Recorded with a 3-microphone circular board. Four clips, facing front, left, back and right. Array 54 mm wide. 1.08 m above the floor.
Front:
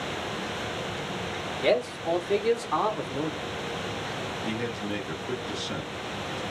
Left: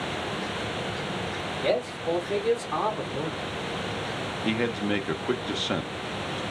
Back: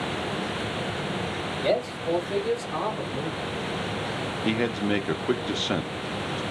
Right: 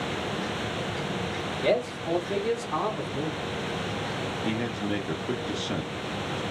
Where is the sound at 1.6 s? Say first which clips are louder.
Right 1 dB, front 1 dB; 15° right, 1.4 m; by 3.5 s 55° left, 0.9 m.